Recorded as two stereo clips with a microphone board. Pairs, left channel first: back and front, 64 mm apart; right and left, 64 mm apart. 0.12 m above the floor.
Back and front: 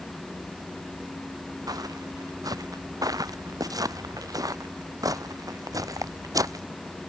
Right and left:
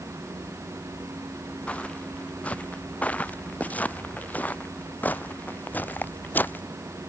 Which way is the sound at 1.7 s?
20° right.